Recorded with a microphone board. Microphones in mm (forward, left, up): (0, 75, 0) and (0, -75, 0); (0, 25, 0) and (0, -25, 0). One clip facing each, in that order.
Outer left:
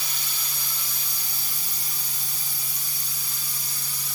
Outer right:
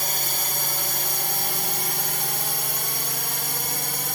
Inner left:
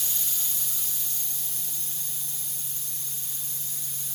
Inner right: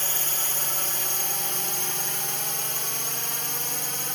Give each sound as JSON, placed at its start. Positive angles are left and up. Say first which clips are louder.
{"t": 0.0, "sound": "a drone", "louder": "outer right 9 dB, inner right 8 dB", "side_deg": -50}